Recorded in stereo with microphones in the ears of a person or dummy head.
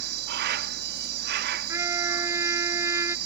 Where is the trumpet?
20° right (ahead or behind).